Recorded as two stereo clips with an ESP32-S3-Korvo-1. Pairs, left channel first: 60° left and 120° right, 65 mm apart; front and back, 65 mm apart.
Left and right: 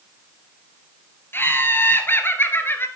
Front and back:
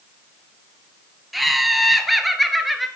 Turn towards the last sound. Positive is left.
turn(degrees=90)